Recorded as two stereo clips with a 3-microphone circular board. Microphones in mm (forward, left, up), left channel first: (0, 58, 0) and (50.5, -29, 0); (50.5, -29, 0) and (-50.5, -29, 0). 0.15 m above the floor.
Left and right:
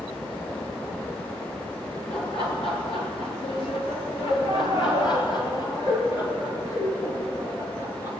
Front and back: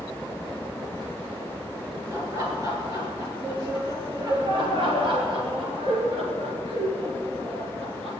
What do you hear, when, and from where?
2.1 s laughter: 125° left, 3.5 m; by 8.1 s 175° left, 4.5 m